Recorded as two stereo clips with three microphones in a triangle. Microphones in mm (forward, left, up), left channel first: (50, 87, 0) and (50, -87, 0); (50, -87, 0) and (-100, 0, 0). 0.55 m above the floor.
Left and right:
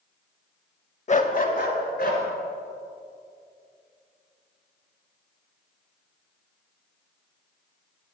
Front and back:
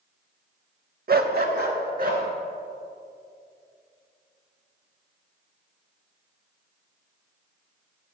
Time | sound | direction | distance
1.1 | a dog barking | 130° left | 0.5 m